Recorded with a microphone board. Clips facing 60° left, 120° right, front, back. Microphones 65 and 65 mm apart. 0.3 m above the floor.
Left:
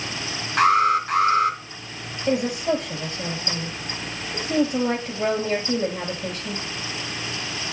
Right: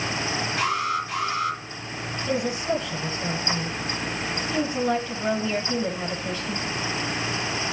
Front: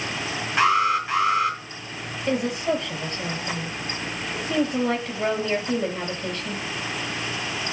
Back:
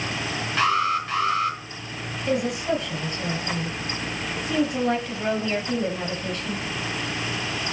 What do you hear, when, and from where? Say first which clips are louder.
0.6 s an alarm: left 10 dB, front 2 dB; 70° left, 4 m
2.3 s a woman speaking: left 4 dB, even; 50° left, 5 m